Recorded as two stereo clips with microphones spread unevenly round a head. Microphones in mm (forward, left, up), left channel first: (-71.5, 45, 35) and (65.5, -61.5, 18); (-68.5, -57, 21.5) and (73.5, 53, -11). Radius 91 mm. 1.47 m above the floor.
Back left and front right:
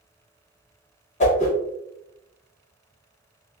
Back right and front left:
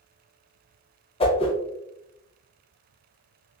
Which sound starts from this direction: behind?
A whoosh, at 1.2 s.